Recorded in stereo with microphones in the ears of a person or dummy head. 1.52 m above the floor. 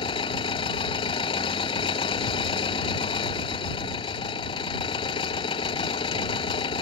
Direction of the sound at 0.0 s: 30° left (ahead or behind).